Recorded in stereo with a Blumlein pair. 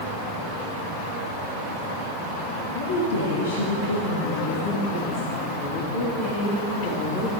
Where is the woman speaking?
65° left, 2 m; by 7.4 s 45° left, 4.5 m.